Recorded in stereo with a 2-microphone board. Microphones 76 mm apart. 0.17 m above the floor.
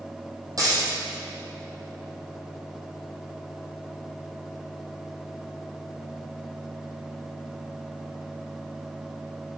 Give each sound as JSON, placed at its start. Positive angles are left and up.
{"t": 0.6, "sound": "a dropped coin", "side_deg": -50, "distance_m": 2.5}